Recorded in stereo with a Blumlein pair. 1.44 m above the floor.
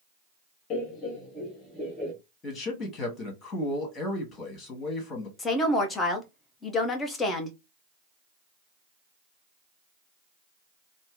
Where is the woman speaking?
15° left, 1.0 m.